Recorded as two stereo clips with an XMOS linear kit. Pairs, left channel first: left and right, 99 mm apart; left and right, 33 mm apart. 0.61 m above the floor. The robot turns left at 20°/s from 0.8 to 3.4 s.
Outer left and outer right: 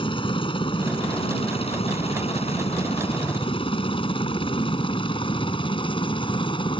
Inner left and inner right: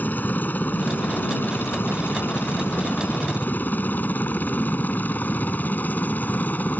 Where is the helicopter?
60° left (ahead or behind); by 6.8 s 55° left (ahead or behind).